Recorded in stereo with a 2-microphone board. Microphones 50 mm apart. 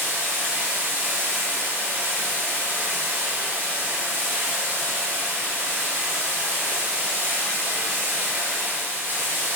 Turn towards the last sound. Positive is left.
turn(degrees=-40)  # may be behind; listen again after turning